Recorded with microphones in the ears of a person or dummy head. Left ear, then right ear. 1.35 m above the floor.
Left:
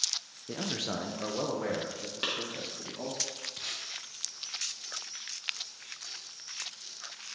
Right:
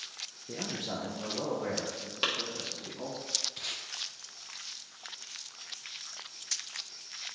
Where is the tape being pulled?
Centre (ahead or behind), 0.5 m.